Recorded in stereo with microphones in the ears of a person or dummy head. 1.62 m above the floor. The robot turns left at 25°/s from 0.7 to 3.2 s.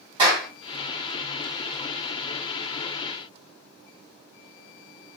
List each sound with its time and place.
0.2 s a clap: 35° right (ahead or behind), 3.5 m